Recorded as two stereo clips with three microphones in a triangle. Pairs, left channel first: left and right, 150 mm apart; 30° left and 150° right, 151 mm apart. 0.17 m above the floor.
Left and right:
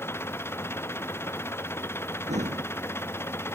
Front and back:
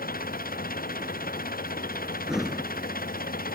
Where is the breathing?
60° right.